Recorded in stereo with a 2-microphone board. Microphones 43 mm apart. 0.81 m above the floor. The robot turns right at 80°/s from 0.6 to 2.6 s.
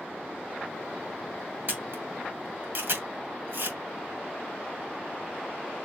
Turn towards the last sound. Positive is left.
turn(degrees=-65)  # may be behind; listen again after turning